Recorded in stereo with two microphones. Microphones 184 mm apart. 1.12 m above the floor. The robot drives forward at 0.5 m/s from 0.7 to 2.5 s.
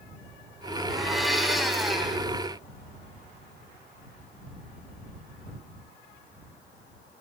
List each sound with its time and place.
0.9 s a blender: centre (ahead or behind), 3.5 m